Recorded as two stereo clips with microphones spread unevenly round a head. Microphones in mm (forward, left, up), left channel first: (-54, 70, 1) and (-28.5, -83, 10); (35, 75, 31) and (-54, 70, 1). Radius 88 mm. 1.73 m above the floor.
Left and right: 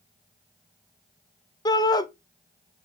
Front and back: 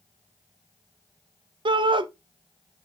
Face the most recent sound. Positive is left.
turn(degrees=165)